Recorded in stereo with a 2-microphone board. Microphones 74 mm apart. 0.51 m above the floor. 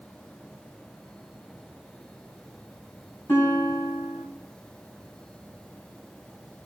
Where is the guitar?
35° left (ahead or behind), 3 m.